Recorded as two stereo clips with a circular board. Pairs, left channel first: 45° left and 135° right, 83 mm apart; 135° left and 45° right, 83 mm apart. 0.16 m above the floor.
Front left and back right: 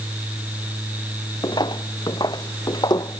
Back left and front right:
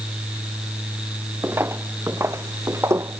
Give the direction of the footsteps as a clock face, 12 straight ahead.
11 o'clock.